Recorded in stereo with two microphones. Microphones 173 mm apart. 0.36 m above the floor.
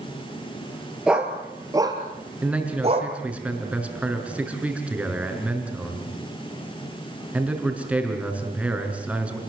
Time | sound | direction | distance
1.1 | a dog barking | 5° right (ahead or behind) | 3 m
2.4 | a man speaking | 10° right (ahead or behind) | 5 m